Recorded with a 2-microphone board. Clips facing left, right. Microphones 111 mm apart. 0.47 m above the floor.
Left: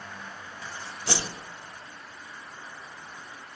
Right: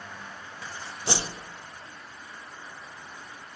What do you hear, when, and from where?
1.1 s a whoosh: 20° right (ahead or behind), 0.7 m